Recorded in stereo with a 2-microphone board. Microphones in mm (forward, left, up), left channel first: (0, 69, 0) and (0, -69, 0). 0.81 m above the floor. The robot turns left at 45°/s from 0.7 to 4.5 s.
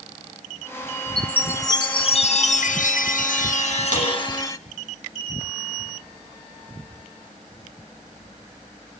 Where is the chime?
175° left, 1.0 m; by 4.6 s 25° left, 1.0 m.